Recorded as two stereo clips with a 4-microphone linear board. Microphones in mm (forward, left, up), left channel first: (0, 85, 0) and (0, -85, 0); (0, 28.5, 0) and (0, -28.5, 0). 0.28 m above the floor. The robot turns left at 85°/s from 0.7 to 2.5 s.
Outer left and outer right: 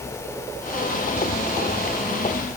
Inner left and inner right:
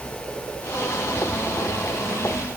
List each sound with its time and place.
Only background noise.